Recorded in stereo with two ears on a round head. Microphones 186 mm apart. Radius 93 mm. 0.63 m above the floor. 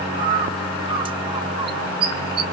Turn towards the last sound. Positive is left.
turn(degrees=-25)  # may be behind; listen again after turning